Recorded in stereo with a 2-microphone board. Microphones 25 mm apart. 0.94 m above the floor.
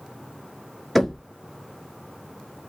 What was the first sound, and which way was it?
Knocking, 5° left (ahead or behind).